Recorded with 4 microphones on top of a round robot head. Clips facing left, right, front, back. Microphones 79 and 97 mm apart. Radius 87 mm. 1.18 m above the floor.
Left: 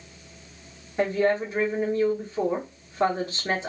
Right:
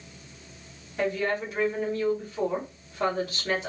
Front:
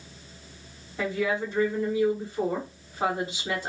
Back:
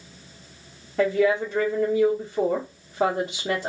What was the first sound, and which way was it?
A woman speaking, 155° left.